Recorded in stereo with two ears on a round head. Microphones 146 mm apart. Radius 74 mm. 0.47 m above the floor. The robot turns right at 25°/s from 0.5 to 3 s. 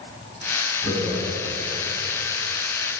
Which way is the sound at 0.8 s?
5° left (ahead or behind).